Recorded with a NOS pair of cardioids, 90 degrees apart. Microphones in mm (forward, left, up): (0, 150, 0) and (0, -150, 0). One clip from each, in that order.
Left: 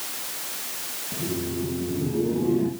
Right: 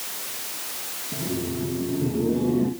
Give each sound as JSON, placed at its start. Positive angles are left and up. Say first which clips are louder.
{"t": 1.1, "sound": "laughter", "louder": "even", "azimuth_deg": 0, "distance_m": 2.5}